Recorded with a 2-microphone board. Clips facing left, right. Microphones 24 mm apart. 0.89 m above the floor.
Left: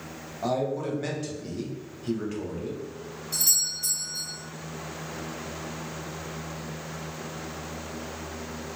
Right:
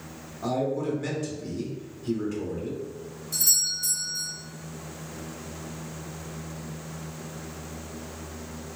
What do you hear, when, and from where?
0.4 s a man speaking: 20° left (ahead or behind), 0.9 m
3.3 s a doorbell: 25° left (ahead or behind), 1.1 m